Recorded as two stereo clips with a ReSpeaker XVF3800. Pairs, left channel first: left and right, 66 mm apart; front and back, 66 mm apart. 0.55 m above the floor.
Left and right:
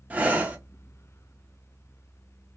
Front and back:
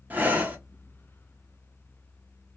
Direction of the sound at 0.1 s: 135° right.